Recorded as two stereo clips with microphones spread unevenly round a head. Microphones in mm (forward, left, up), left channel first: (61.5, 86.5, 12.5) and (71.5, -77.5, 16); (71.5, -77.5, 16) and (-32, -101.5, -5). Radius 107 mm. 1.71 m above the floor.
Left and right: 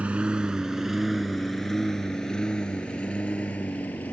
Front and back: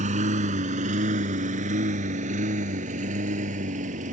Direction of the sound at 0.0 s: 170° right.